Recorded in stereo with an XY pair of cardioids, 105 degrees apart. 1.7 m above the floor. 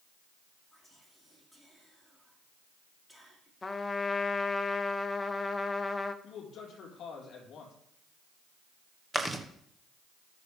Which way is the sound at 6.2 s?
65° left.